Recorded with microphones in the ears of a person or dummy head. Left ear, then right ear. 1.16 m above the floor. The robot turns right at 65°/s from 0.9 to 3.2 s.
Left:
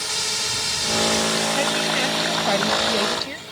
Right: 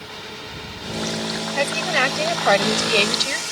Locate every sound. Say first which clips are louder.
0.0 s a drone: left 10 dB; 85° left; by 3.5 s 125° right
1.6 s a woman speaking: right 1 dB; 165° right; by 3.4 s 55° right